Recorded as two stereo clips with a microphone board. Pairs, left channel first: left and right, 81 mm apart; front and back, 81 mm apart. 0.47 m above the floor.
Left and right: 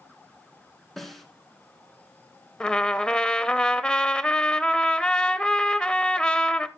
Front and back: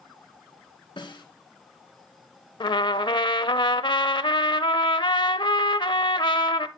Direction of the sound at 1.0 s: Straight ahead.